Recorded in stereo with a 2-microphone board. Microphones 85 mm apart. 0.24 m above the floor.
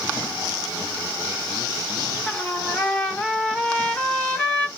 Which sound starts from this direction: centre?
A trumpet, at 2.3 s.